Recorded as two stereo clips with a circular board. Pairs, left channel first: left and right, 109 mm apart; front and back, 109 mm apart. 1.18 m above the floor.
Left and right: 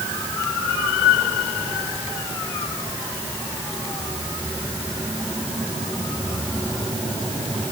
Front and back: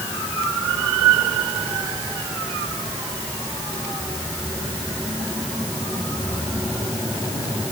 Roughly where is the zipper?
I don't hear a zipper.